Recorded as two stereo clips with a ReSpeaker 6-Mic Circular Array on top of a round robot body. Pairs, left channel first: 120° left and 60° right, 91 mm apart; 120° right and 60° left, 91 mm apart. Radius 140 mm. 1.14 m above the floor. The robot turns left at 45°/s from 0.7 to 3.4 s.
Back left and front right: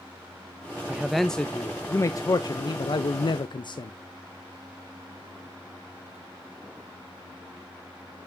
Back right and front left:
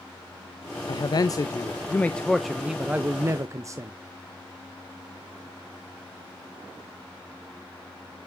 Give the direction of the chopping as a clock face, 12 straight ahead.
I don't hear chopping.